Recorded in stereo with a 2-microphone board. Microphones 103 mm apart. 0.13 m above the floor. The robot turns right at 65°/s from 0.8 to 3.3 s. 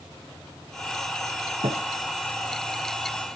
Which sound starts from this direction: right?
A thud, at 1.6 s.